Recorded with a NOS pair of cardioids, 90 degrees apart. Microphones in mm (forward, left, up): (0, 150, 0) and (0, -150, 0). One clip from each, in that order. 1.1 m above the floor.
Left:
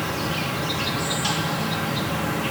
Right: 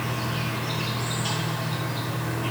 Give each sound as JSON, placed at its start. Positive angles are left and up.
{"t": 0.0, "sound": "an insect", "azimuth_deg": 70, "distance_m": 1.0}